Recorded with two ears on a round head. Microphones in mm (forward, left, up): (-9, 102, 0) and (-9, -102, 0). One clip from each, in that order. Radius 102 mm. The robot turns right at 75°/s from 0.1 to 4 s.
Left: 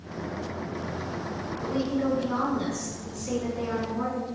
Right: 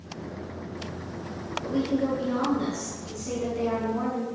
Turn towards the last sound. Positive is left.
turn(degrees=-130)